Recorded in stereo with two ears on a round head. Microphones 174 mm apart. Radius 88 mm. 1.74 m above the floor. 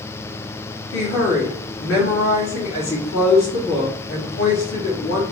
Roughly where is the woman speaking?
Left.